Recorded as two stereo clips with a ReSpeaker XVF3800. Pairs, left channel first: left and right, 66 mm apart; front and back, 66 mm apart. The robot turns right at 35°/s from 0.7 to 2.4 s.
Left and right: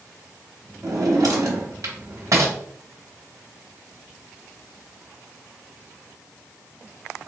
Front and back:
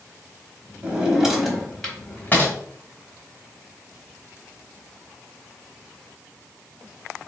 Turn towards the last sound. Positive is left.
turn(degrees=-60)